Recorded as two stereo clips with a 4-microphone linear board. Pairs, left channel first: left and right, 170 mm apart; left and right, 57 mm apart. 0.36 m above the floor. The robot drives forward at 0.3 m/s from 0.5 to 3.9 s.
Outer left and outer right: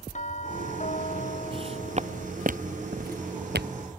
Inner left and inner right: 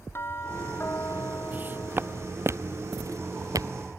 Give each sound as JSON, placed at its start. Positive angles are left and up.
{"t": 0.1, "sound": "a doorbell", "side_deg": 45}
{"t": 1.5, "sound": "footsteps", "side_deg": -30}